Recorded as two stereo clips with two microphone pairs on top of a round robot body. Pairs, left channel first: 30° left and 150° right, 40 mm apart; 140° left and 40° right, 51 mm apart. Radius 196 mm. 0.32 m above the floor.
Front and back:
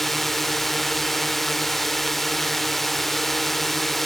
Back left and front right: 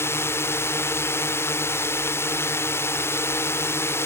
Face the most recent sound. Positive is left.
turn(degrees=115)